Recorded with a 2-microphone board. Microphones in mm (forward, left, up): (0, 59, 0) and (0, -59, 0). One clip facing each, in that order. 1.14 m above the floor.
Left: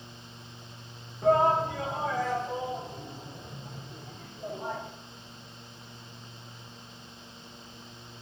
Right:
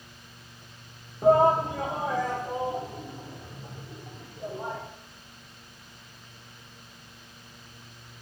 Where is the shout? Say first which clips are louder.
Right 3 dB; 25° right (ahead or behind), 1.3 m; by 4.8 s 40° right (ahead or behind), 4 m.